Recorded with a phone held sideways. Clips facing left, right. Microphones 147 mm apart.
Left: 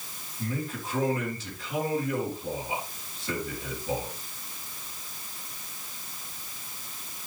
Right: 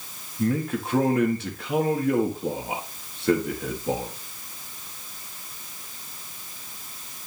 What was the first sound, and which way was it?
A man speaking, 65° right (ahead or behind).